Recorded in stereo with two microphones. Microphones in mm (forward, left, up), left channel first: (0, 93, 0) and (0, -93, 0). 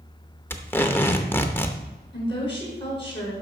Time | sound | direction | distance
0.5 | tape being pulled | 10° left (ahead or behind) | 0.8 m
2.1 | a woman speaking | 30° left (ahead or behind) | 5 m